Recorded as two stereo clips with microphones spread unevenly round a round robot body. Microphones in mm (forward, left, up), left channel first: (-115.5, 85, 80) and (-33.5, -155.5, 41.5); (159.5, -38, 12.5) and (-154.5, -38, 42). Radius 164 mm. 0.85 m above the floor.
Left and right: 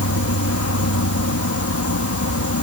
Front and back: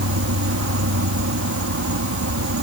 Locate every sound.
0.0 s an insect: 135° left